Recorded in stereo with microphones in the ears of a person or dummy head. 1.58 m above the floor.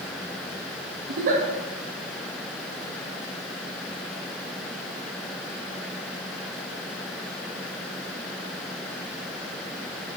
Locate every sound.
1.1 s a giggle: 35° right (ahead or behind), 0.9 m